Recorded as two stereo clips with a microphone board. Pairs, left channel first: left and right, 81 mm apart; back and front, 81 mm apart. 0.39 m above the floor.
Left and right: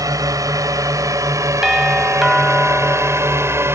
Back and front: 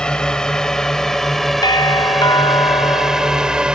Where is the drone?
105° right; by 3.8 s 70° right.